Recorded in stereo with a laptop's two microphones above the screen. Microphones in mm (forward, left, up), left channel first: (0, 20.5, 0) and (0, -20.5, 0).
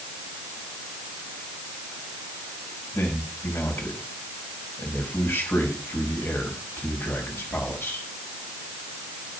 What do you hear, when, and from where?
2.9 s a man speaking: 80° left, 5 m